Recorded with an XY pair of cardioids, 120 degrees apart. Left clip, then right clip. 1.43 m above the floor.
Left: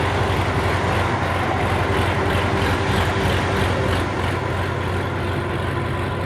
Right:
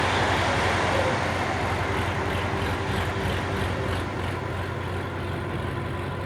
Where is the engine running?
45° left.